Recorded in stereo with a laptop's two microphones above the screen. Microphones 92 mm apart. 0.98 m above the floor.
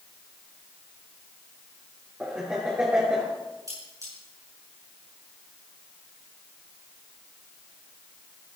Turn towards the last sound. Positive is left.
turn(degrees=-35)  # may be behind; listen again after turning